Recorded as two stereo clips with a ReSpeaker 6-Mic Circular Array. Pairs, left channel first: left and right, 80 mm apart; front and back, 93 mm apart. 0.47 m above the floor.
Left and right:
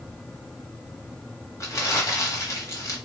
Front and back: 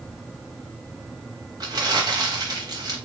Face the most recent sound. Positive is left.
turn(degrees=140)